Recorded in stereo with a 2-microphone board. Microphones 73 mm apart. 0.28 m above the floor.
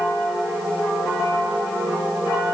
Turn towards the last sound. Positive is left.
No sound to turn to.